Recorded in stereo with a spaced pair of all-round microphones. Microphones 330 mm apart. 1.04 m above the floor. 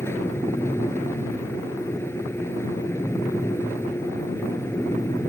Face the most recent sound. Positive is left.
turn(degrees=5)  # may be behind; listen again after turning